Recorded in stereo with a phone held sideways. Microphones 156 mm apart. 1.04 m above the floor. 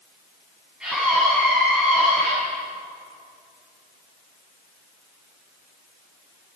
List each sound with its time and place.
0.8 s a scream: 5° right (ahead or behind), 9.5 m